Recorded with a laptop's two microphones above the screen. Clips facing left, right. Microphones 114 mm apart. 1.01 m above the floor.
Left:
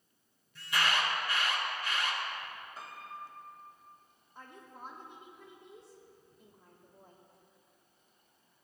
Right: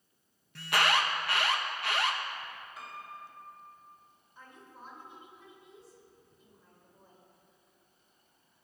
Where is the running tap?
I don't hear a running tap.